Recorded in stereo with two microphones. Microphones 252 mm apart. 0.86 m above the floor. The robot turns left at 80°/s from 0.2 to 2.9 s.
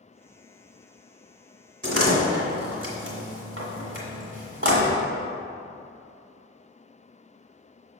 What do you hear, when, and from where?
1.8 s a door slam: 45° right (ahead or behind), 1.6 m; by 5.0 s 50° right (ahead or behind), 1.6 m